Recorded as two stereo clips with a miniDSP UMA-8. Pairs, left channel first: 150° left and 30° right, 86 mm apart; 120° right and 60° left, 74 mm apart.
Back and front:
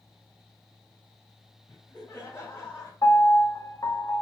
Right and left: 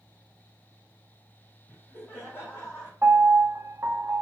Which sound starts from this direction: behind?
Laughter, at 1.7 s.